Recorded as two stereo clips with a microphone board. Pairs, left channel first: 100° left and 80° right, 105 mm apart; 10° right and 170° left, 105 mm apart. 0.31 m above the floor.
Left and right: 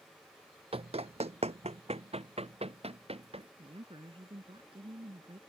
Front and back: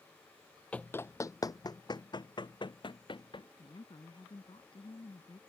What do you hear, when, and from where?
0.7 s running footsteps: 90° right; by 3.5 s 50° right
3.6 s a woman speaking: 50° right